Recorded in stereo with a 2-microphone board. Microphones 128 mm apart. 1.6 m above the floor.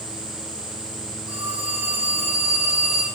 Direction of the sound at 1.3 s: 5° right (ahead or behind).